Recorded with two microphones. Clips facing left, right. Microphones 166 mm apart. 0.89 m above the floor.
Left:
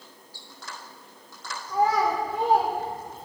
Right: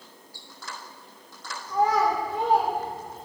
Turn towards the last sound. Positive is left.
turn(degrees=10)  # may be behind; listen again after turning